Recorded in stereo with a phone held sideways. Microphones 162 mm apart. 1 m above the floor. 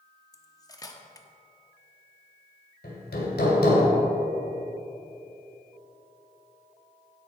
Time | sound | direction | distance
0.3 | cutlery clinking | 20° left (ahead or behind) | 1.0 m
2.8 | hammering | 80° left | 2.5 m